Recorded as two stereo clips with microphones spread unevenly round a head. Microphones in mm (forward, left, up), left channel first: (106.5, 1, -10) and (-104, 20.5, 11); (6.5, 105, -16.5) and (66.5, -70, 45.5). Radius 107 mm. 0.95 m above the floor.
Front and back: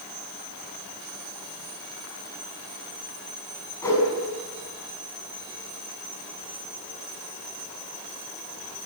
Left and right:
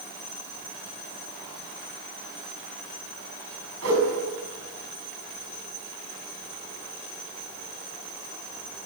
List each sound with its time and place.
3.8 s a whoosh: 85° right, 7 m